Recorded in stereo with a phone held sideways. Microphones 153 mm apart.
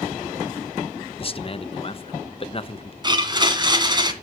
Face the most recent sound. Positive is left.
turn(degrees=-30)  # may be behind; listen again after turning